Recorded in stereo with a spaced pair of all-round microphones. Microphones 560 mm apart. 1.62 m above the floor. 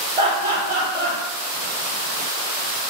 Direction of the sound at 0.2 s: 70° right (ahead or behind).